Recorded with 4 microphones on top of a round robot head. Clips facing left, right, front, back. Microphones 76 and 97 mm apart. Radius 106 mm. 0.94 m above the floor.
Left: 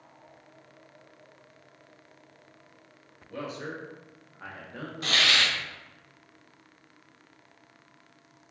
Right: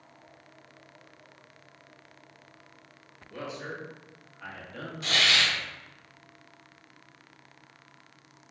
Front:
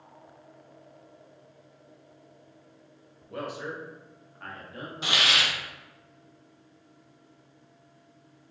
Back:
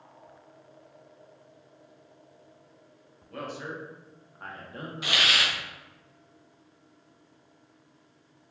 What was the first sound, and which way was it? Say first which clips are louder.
A man speaking: left 1 dB, front 2 dB; 65° left.